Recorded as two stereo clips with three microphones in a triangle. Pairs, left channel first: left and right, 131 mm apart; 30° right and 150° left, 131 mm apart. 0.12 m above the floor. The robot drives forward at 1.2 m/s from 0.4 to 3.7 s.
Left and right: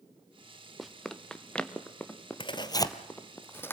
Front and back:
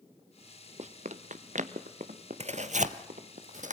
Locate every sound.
0.8 s running footsteps: straight behind, 1.5 m; by 3.4 s 160° left, 3 m
2.4 s tearing paper: 130° left, 1.0 m; by 3.7 s 165° left, 2.5 m